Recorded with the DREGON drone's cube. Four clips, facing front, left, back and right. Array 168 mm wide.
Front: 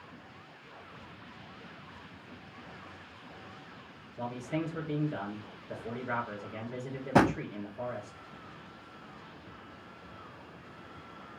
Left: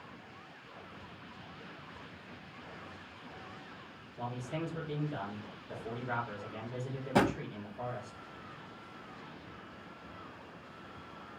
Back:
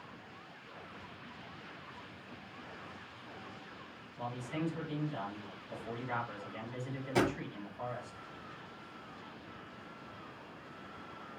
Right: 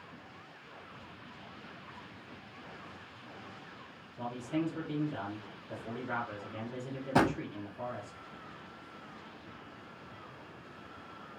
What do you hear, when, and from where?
4.2 s a man speaking: 10° left, 4 m
7.2 s a drawer: 5° right, 0.6 m